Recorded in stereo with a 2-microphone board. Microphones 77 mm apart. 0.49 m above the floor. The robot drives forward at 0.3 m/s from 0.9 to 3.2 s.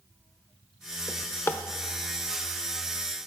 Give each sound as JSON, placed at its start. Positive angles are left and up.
{"t": 1.1, "sound": "a drawer", "side_deg": 35, "distance_m": 0.7}